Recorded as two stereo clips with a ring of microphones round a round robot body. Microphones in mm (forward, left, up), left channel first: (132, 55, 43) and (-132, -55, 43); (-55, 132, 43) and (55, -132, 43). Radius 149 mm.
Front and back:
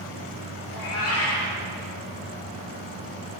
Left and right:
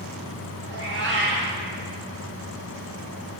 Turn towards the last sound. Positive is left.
turn(degrees=-15)